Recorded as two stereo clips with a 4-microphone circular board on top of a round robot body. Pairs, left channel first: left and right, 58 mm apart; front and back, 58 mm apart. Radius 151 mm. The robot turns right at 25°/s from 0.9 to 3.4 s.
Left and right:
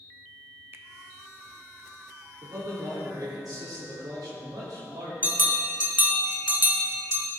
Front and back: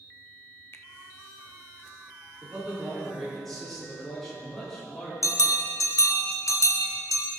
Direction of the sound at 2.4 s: 110° right.